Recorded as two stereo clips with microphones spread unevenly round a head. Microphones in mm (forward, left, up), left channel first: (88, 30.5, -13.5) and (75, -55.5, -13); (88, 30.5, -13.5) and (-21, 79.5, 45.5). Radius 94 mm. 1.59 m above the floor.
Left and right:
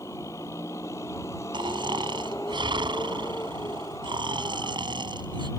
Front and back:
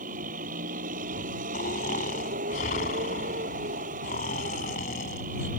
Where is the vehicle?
155° left.